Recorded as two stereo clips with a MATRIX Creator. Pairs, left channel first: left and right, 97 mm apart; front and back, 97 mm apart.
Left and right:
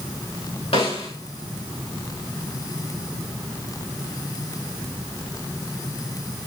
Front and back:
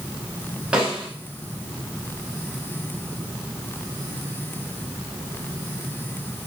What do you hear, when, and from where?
0.7 s a snare drum: 100° left, 6 m